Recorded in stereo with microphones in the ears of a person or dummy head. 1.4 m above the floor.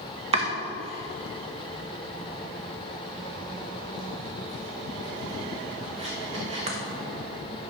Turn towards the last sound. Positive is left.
turn(degrees=-30)  # may be behind; listen again after turning